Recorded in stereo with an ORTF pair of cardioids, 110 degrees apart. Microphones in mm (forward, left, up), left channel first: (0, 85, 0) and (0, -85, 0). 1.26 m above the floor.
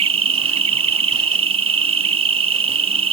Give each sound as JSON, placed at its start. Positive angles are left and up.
{"t": 0.0, "sound": "an insect", "azimuth_deg": -35}